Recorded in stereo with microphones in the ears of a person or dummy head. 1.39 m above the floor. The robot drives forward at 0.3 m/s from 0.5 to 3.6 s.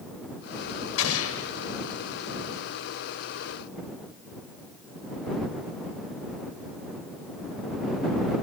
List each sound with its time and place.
1.0 s an explosion: 80° left, 1.4 m; by 1.5 s 75° left (ahead or behind), 1.4 m